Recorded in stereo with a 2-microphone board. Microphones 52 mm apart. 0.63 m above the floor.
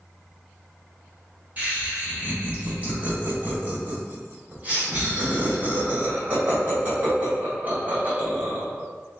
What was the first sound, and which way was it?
Laughter, 35° right (ahead or behind).